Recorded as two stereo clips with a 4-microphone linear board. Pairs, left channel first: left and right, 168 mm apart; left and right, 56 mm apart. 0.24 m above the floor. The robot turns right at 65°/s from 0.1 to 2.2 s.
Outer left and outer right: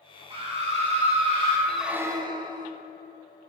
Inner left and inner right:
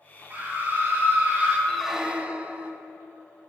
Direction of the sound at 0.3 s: 125° right.